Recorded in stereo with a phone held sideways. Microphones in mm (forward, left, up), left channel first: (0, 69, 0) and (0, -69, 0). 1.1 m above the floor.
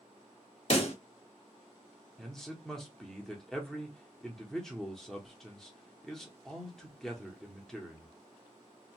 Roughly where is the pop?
Left.